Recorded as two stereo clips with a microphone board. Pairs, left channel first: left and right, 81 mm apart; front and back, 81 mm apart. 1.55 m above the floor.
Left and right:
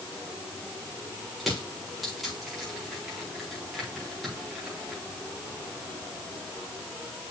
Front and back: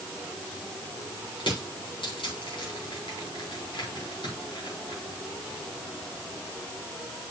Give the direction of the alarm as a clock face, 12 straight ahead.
No alarm in this recording.